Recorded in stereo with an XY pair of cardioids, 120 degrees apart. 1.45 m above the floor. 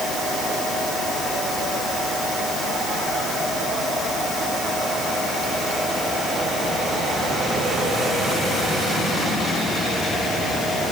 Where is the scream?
No scream in this recording.